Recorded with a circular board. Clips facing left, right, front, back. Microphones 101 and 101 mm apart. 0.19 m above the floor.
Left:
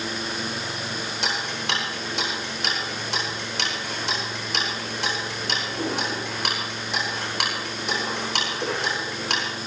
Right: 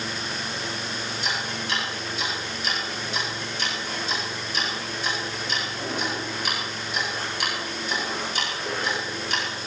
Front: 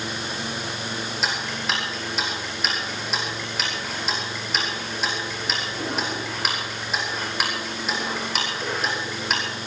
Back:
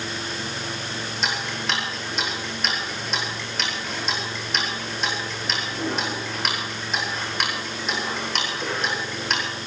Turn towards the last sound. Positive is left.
turn(degrees=90)